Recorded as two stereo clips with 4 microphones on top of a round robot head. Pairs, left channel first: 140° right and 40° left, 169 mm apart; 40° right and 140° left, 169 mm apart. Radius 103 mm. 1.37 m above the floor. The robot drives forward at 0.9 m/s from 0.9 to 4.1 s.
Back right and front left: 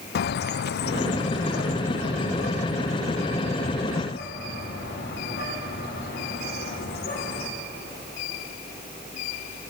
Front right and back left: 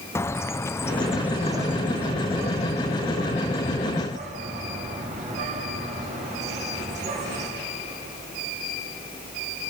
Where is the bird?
115° right, 0.5 m; by 7.5 s 170° right, 3 m.